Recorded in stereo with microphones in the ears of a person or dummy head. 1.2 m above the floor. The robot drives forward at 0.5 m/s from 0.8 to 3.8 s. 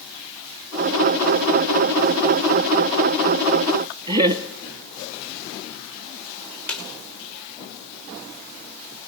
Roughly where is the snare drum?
Centre.